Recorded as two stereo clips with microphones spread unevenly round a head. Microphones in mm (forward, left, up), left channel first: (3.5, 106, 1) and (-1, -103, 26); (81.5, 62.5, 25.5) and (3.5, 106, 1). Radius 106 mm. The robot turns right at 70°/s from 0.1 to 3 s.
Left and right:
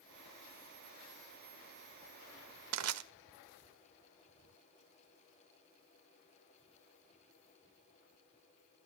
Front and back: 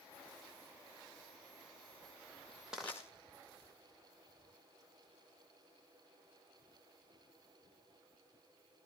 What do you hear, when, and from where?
2.7 s crushing: 120° right, 1.7 m; by 3.0 s 100° right, 1.7 m